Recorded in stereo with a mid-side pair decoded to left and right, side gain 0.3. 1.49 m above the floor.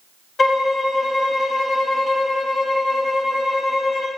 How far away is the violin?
About 0.8 m.